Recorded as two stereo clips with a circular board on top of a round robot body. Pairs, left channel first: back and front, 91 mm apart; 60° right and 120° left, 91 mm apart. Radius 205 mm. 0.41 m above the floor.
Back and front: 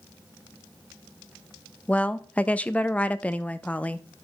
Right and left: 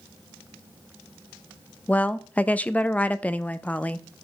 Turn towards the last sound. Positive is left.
turn(degrees=-120)